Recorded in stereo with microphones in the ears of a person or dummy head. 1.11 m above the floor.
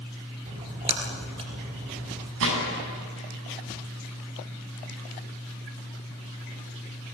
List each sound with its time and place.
0.5 s a splash: 35° right (ahead or behind), 3.5 m
2.4 s a gunshot: 80° right, 8 m